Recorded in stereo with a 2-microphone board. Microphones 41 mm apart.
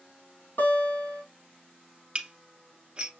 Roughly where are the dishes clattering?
Right.